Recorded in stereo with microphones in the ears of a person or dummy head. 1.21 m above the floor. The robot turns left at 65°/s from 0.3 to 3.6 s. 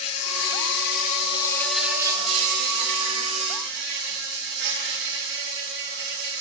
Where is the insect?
95° left, 2.5 m; by 6.4 s 120° right, 2.5 m.